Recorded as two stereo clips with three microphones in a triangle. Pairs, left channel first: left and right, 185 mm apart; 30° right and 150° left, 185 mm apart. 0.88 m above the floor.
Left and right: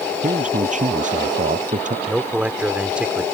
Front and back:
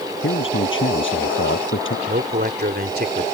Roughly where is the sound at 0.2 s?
Ahead right.